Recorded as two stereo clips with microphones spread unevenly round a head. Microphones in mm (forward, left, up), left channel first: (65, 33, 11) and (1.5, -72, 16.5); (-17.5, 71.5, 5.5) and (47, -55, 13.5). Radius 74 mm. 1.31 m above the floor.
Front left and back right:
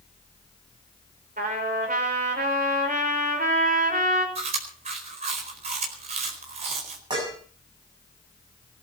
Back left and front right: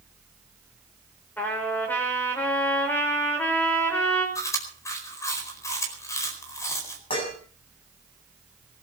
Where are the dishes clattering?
175° left, 7 m.